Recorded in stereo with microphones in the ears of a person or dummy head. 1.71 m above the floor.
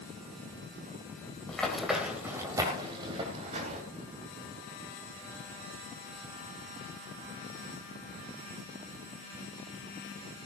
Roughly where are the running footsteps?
Centre.